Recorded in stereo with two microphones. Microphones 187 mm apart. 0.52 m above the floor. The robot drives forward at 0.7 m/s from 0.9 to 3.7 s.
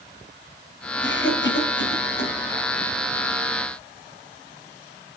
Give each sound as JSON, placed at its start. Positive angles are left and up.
{"t": 1.0, "sound": "a cough", "side_deg": 75, "distance_m": 3.0}